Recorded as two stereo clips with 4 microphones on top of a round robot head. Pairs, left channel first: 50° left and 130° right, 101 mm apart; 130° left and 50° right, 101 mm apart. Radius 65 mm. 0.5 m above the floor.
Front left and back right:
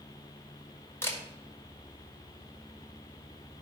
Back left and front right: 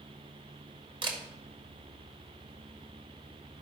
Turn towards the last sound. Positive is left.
turn(degrees=-15)